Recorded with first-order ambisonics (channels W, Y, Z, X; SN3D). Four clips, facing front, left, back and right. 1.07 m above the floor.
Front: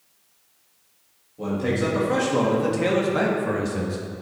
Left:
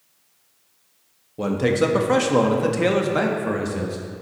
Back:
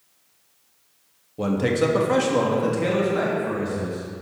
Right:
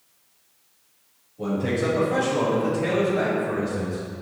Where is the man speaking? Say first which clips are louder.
Left 5 dB, back 3 dB; 125° left, 1.2 m; by 4.0 s 55° left, 1.5 m.